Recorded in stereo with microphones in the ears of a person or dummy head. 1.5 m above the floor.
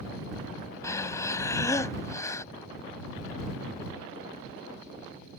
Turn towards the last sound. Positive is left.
turn(degrees=20)  # may be behind; listen again after turning